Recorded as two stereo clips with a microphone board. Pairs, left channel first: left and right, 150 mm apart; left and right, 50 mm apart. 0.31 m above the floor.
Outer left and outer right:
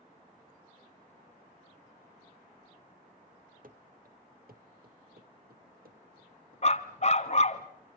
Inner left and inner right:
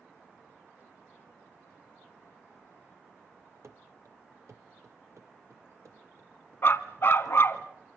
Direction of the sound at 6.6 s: 50° left (ahead or behind).